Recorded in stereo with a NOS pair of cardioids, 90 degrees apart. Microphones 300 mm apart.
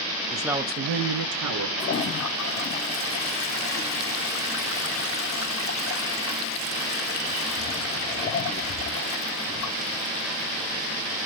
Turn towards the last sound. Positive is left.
turn(degrees=45)